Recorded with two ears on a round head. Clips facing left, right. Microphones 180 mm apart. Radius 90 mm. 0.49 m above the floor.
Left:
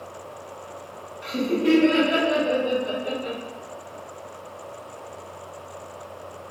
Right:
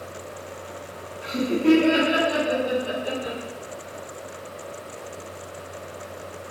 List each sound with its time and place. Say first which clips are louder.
1.2 s laughter: right 2 dB; 20° left (ahead or behind), 1.2 m; by 3.4 s 10° right (ahead or behind), 1.5 m